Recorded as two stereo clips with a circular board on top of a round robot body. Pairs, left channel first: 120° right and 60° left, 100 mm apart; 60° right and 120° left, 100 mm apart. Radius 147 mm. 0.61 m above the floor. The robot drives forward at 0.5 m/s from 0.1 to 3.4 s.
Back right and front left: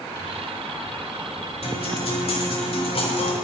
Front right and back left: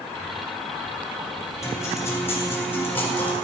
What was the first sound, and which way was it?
A guitar, 120° right.